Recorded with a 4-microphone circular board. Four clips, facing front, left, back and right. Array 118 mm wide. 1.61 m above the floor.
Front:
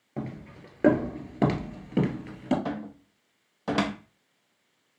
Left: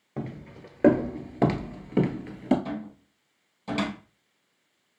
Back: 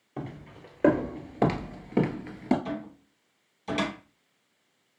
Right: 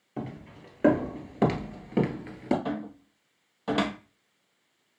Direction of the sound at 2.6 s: 35° right.